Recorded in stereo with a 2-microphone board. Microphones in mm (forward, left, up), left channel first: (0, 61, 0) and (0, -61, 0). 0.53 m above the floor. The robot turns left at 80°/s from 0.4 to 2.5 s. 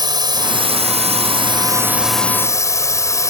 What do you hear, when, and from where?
0.0 s a drone: 40° right; by 3.3 s 150° left